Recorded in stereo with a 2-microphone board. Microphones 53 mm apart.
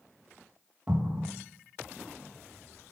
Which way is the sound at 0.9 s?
25° right (ahead or behind).